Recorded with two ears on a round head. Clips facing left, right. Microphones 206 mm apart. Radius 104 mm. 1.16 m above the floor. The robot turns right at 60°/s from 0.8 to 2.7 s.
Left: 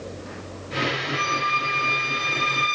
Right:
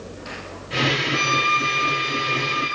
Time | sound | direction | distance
1.1 | a violin | 55° right | 3 m